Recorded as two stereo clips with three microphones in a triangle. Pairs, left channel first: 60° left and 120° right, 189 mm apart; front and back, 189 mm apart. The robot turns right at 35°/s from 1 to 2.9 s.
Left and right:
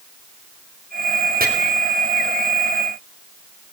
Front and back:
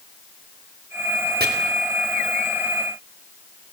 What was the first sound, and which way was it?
Chopping, 155° right.